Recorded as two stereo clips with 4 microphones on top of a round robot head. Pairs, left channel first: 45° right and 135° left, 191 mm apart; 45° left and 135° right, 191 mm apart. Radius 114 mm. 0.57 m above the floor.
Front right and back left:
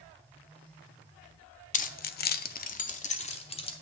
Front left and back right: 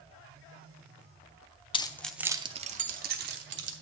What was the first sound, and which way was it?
Keys jangling, 10° right.